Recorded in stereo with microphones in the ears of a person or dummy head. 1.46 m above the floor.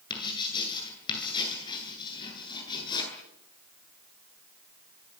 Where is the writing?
30° left (ahead or behind), 9.5 m.